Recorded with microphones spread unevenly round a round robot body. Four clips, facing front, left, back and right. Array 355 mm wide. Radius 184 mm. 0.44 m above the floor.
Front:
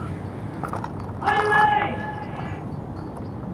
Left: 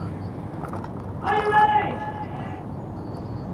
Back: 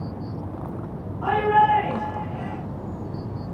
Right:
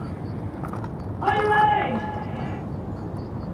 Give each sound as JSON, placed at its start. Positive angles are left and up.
{"t": 1.2, "sound": "a shout", "azimuth_deg": -85, "distance_m": 8.0}